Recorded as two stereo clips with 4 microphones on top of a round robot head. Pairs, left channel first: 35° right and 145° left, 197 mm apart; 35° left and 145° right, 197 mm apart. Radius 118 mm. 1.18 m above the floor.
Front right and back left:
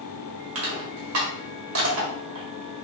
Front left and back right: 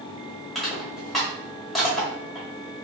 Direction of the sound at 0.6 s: 125° left.